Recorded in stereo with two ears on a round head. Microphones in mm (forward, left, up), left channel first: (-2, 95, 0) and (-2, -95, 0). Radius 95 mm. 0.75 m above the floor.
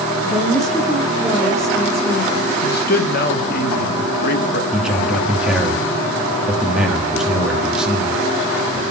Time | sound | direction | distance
0.2 | a woman speaking | 5° left (ahead or behind) | 1.8 m
2.6 | a man speaking | 45° left (ahead or behind) | 1.3 m
4.7 | a man speaking | 5° right (ahead or behind) | 1.3 m